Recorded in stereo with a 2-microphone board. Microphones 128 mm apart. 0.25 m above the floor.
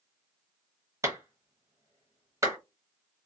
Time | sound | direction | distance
1.0 | a clap | 25° right (ahead or behind) | 0.8 m